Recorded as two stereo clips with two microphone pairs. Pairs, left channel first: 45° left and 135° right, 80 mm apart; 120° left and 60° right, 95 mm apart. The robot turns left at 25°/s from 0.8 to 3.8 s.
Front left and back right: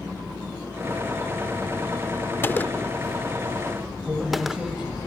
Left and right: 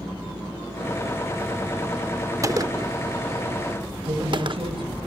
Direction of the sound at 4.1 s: 55° right.